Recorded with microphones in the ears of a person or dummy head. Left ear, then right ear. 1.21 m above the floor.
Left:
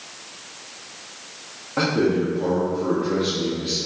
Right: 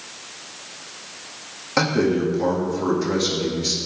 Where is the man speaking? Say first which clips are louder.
Right 1 dB; 80° right, 1.7 m.